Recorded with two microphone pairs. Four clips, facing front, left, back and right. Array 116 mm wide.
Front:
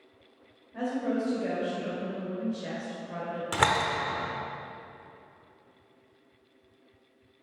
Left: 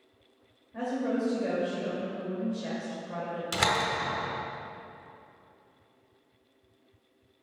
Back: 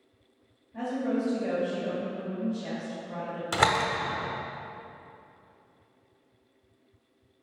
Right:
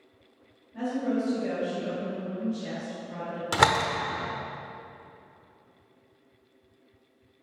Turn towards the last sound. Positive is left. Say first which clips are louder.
# right 6 dB, back 1 dB
turn(degrees=-90)